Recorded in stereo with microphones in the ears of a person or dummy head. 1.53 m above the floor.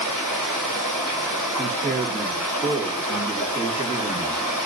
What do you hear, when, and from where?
0.0 s running water: centre (ahead or behind), 2 m
1.6 s a man speaking: 25° right (ahead or behind), 1.5 m